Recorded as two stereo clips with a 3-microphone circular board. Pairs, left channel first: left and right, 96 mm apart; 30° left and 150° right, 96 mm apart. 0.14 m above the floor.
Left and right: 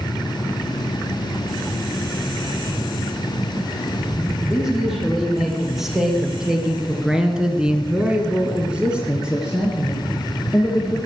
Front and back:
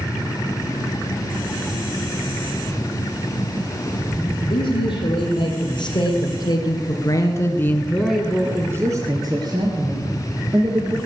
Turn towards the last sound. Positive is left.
turn(degrees=-175)